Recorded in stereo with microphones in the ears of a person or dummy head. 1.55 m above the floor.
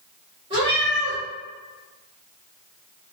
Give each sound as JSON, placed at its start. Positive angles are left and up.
{"t": 0.5, "sound": "a cat meowing", "side_deg": -25, "distance_m": 0.9}